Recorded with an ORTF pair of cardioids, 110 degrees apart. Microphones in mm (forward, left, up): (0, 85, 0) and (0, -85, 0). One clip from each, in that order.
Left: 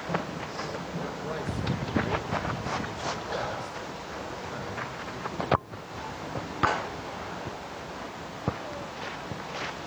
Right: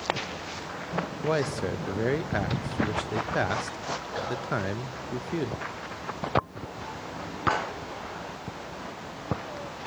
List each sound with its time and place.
1.2 s a man speaking: 55° right, 0.6 m